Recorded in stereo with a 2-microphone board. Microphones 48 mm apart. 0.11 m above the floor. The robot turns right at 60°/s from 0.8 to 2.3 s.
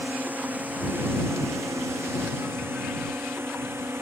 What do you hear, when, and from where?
0.0 s a drone: 35° right (ahead or behind); by 4.0 s 55° right (ahead or behind)